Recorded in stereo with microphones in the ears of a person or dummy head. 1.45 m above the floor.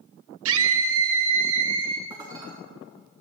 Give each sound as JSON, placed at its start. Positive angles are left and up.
{"t": 0.5, "sound": "a scream", "side_deg": -85, "distance_m": 1.1}
{"t": 2.1, "sound": "dishes clattering", "side_deg": -20, "distance_m": 2.0}